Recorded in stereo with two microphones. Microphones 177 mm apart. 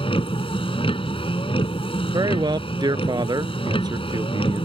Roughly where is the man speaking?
Right.